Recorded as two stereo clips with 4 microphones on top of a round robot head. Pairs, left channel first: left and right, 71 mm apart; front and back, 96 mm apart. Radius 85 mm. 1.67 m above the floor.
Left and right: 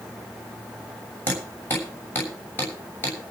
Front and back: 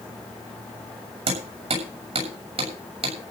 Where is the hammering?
160° left, 7 m.